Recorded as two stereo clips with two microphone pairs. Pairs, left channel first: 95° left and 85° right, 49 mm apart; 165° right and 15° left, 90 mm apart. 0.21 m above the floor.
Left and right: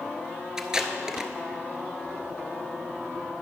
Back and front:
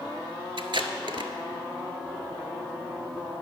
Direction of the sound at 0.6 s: 5° right.